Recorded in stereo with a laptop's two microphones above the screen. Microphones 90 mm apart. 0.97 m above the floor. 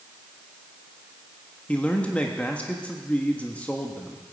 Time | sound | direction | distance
1.7 | a man speaking | 15° left (ahead or behind) | 1.4 m